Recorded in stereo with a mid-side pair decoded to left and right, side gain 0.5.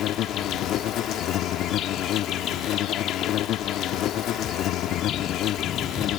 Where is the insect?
70° left.